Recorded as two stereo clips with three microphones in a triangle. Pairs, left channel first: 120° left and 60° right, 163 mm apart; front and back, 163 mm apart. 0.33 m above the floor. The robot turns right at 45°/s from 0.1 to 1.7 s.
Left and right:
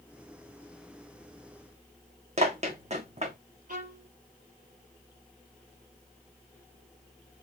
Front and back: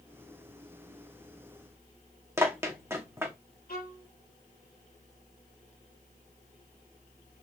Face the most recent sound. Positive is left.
turn(degrees=-25)